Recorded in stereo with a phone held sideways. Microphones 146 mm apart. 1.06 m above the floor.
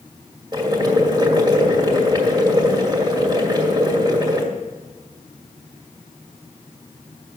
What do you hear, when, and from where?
0.5 s boiling: 30° right (ahead or behind), 2 m